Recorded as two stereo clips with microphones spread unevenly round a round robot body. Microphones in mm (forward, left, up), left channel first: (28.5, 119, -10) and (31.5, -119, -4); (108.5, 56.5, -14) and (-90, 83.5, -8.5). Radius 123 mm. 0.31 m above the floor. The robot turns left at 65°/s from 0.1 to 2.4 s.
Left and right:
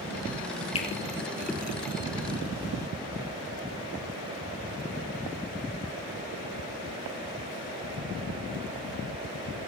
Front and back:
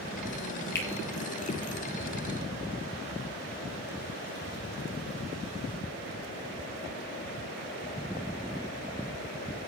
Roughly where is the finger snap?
Ahead left.